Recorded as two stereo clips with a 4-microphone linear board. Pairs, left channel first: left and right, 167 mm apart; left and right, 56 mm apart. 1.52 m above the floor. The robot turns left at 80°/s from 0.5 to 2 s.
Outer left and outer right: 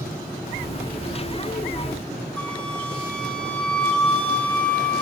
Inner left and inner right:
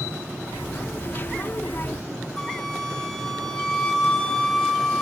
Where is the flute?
5° left (ahead or behind), 2 m.